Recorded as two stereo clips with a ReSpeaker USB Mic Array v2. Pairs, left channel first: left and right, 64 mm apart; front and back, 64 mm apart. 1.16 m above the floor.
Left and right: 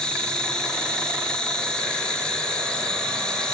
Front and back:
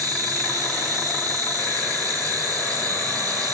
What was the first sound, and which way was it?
An insect, 170° left.